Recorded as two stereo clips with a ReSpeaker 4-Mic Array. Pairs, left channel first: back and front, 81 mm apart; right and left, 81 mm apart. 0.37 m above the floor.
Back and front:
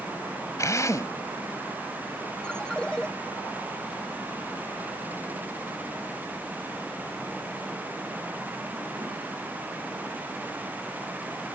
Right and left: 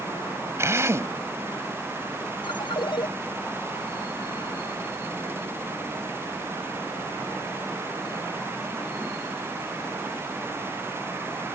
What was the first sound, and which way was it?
A drill, 140° left.